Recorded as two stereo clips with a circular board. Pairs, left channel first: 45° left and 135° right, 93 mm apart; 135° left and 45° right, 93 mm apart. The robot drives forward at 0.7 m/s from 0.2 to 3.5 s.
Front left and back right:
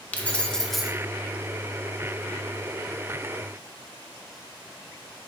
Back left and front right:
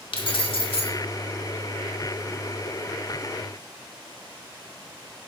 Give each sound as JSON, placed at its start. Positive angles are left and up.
{"t": 0.1, "sound": "keys jangling", "azimuth_deg": 120, "distance_m": 1.1}